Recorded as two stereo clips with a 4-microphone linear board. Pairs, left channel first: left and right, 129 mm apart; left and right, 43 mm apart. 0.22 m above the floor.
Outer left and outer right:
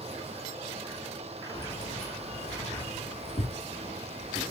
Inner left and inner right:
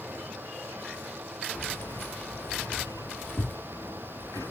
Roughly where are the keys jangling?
Left.